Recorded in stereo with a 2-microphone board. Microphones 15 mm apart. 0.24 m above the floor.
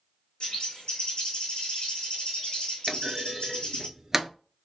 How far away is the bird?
About 1.9 m.